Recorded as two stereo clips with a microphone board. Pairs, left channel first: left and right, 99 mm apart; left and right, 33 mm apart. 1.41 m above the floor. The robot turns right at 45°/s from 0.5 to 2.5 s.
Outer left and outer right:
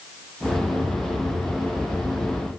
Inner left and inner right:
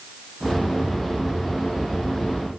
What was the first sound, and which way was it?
Only background noise.